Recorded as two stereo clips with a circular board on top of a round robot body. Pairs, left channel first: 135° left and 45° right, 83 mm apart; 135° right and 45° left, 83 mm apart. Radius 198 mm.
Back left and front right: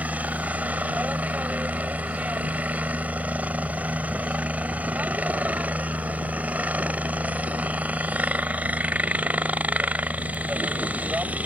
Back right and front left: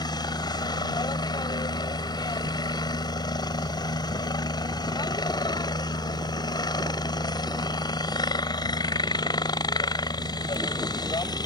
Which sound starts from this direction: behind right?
A helicopter, at 0.0 s.